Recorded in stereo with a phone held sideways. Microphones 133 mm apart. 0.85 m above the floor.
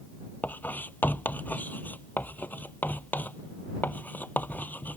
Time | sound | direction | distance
0.4 | writing | 15° left (ahead or behind) | ?